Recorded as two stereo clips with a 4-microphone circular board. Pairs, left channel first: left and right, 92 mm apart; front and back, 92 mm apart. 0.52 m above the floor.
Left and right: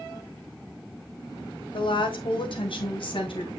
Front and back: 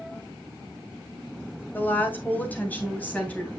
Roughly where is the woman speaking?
Left.